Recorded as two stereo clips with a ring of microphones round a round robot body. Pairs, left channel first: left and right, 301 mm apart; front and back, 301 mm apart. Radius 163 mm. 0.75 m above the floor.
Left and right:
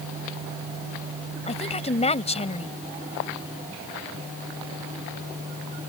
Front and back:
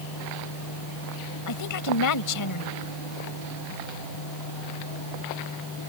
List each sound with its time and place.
1.5 s a woman speaking: 20° left